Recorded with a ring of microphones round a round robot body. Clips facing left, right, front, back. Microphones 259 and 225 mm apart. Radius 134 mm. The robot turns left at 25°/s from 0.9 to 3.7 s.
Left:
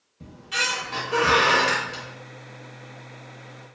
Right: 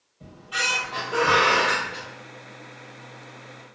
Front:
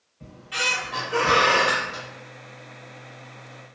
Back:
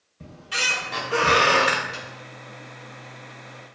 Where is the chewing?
I don't hear chewing.